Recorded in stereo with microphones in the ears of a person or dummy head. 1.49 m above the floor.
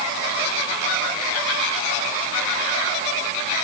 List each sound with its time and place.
Only background noise.